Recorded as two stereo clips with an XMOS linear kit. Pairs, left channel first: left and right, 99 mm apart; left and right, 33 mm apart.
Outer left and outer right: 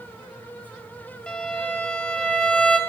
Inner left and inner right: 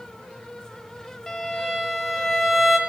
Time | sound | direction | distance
1.3 | a violin | 10° left (ahead or behind) | 1.0 m